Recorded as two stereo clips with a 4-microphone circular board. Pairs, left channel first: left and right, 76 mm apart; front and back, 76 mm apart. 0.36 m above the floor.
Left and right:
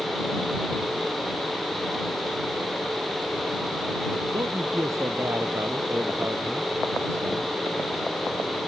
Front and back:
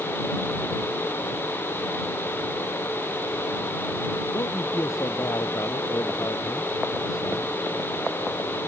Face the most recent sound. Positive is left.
turn(degrees=-30)